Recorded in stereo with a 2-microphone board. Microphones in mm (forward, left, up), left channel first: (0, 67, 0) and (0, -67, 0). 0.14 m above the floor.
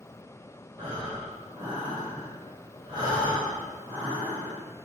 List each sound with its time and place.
0.8 s breathing: 30° right (ahead or behind), 4.5 m